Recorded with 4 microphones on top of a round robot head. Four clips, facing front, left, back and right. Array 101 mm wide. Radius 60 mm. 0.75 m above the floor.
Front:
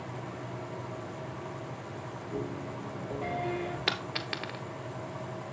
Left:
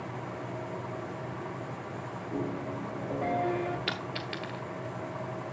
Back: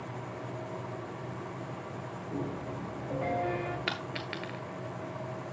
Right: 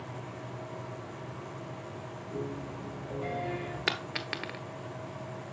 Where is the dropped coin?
75° right, 0.7 m.